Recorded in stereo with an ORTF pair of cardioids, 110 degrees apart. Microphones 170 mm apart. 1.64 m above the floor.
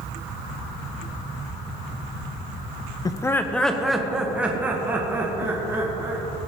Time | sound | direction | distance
3.0 | laughter | 25° left | 0.8 m